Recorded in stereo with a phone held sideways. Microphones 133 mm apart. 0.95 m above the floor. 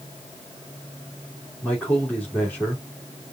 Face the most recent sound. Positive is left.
turn(degrees=10)  # may be behind; listen again after turning